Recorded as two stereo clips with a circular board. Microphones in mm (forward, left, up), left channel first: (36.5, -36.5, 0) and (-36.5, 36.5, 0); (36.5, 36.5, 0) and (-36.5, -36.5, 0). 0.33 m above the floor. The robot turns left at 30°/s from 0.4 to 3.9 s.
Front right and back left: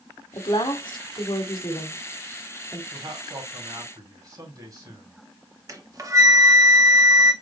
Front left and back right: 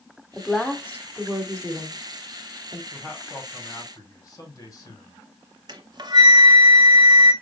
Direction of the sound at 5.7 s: 175° right.